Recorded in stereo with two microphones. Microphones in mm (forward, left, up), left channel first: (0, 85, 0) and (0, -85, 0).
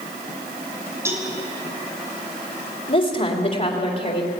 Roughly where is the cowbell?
Centre.